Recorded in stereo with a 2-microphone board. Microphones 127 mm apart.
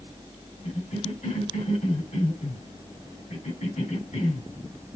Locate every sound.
0.6 s a cough: 65° left (ahead or behind), 3 m